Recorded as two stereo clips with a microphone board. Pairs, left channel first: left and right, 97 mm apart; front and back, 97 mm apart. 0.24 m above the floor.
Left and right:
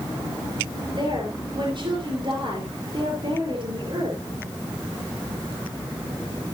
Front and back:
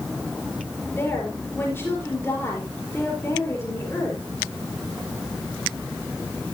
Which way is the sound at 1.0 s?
65° right.